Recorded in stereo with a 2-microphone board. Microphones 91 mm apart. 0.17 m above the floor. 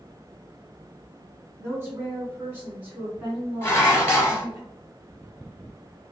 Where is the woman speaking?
25° right (ahead or behind), 1.2 m; by 4.6 s 5° right (ahead or behind), 1.9 m.